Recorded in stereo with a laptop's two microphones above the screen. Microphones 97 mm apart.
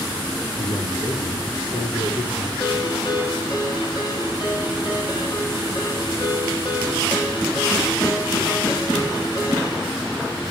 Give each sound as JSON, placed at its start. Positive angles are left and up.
{"t": 0.6, "sound": "a man speaking", "side_deg": 70, "distance_m": 3.0}
{"t": 2.6, "sound": "a ringtone", "side_deg": 50, "distance_m": 8.0}